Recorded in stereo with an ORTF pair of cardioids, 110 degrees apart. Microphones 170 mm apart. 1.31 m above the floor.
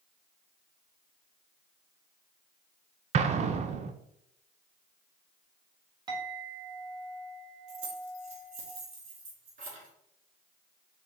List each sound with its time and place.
3.1 s an explosion: 40° right, 0.5 m
6.1 s a clink: 25° right, 1.8 m
7.7 s keys jangling: 45° right, 1.9 m